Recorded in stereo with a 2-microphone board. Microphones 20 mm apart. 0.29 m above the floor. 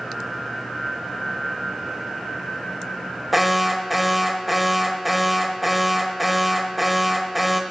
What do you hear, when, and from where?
3.3 s an alarm: 5° right (ahead or behind), 0.8 m